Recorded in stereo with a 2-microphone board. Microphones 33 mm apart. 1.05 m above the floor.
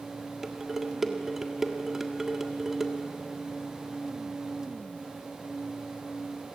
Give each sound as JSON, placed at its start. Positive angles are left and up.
{"t": 0.4, "sound": "dishes clattering", "side_deg": -10, "distance_m": 1.6}